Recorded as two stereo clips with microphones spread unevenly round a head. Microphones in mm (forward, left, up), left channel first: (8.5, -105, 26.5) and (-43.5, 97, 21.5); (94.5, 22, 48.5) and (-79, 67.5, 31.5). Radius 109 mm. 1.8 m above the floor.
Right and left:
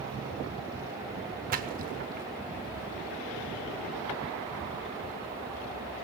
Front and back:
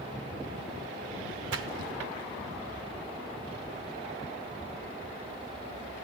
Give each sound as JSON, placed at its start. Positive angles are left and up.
{"t": 1.5, "sound": "a splash", "azimuth_deg": 155, "distance_m": 0.8}